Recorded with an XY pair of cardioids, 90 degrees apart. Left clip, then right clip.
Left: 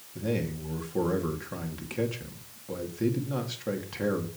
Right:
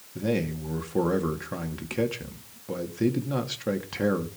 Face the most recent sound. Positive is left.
turn(degrees=-35)